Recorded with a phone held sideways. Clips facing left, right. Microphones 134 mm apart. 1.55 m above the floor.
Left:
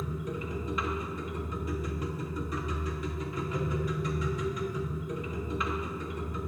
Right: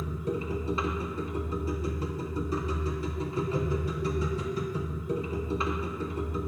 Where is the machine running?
35° right (ahead or behind), 0.8 m.